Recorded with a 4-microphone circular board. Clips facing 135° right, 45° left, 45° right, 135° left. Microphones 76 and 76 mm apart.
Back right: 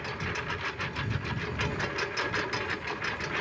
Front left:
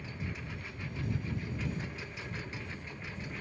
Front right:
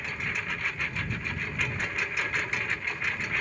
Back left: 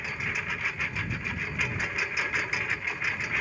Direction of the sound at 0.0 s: 140° right.